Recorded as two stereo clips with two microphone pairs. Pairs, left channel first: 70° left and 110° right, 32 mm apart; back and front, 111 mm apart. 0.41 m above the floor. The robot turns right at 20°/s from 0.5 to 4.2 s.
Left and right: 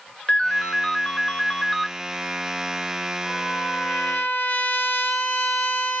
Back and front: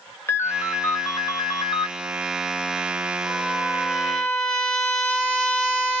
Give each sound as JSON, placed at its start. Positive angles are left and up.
{"t": 0.3, "sound": "a ringtone", "azimuth_deg": 120, "distance_m": 0.6}
{"t": 3.3, "sound": "a trumpet", "azimuth_deg": 85, "distance_m": 1.1}